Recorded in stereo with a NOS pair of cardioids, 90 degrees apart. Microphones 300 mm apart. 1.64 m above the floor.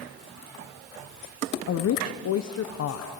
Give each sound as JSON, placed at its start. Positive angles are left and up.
{"t": 1.7, "sound": "a woman speaking", "azimuth_deg": 55, "distance_m": 1.1}